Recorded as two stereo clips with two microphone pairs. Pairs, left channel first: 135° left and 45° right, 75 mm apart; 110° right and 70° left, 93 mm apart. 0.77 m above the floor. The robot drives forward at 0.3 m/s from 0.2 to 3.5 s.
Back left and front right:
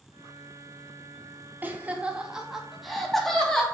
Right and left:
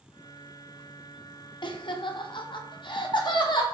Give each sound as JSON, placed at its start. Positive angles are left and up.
{"t": 1.6, "sound": "laughter", "azimuth_deg": -100, "distance_m": 0.7}